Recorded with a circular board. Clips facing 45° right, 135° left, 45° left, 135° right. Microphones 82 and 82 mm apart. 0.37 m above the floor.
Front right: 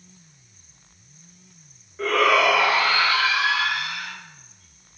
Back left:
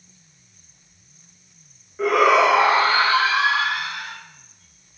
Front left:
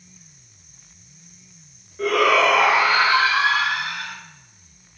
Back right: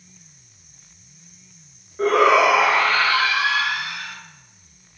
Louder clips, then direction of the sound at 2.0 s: Back left 3 dB, back right 2 dB; 155° right.